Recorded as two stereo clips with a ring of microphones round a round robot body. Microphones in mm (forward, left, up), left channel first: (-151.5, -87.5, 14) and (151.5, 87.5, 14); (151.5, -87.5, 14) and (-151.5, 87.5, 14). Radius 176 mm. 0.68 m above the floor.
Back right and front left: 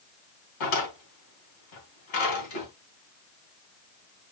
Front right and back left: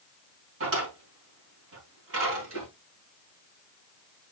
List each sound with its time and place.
0.6 s a drawer: 155° right, 4 m